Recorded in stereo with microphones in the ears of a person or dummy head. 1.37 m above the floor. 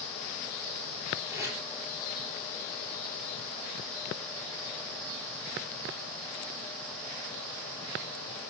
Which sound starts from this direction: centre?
Tape being pulled, at 1.3 s.